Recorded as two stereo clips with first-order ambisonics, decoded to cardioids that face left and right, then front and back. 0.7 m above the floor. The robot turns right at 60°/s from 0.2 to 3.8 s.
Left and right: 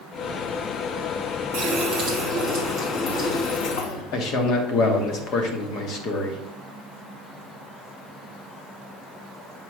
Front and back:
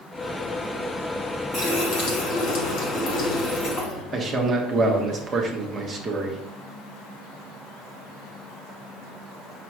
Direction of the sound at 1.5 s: 65° right.